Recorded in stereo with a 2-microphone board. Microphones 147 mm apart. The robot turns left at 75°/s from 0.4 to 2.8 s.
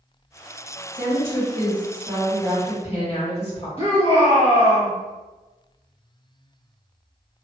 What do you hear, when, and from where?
0.9 s a woman speaking: 85° right, 2.0 m; by 3.7 s 135° left, 2.0 m
3.8 s a shout: 45° left (ahead or behind), 1.6 m